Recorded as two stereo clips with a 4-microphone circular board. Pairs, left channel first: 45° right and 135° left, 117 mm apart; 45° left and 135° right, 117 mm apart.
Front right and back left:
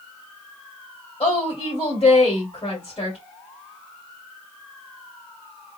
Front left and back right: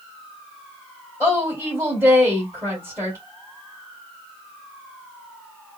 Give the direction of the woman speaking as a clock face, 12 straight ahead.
2 o'clock.